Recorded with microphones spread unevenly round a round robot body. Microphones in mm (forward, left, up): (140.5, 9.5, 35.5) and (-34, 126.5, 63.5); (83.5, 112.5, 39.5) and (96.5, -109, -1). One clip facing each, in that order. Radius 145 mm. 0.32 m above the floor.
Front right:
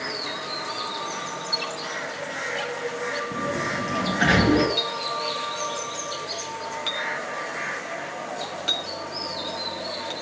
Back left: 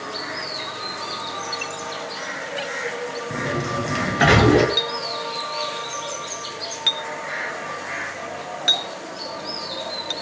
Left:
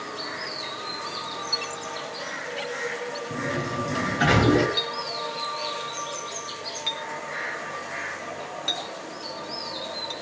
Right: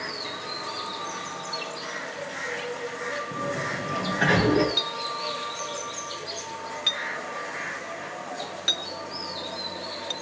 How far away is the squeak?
About 1.8 m.